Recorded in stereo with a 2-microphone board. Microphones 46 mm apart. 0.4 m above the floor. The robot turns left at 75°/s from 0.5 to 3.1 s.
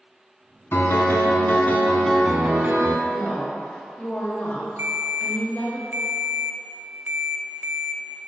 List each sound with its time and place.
0.7 s a piano: 110° left, 1.0 m; by 3.0 s 60° right, 1.0 m
3.1 s a woman speaking: 40° left (ahead or behind), 1.4 m
4.8 s a ringtone: 60° right (ahead or behind), 0.7 m